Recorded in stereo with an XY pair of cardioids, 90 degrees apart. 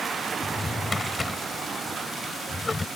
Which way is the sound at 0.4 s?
20° left.